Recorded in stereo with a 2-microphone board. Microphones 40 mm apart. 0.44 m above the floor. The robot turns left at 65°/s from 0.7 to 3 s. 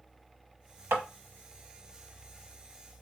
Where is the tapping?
80° right, 1.0 m; by 1.0 s 75° right (ahead or behind), 1.0 m.